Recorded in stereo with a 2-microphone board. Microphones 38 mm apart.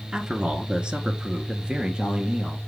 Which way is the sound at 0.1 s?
20° right (ahead or behind).